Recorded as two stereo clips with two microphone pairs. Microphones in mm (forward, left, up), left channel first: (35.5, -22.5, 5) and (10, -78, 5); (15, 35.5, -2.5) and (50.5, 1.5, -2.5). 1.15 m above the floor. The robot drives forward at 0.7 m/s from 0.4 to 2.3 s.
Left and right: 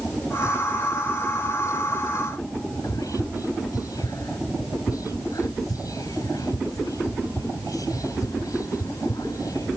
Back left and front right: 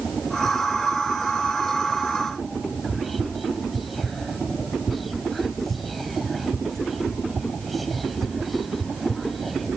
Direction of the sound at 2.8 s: 45° left.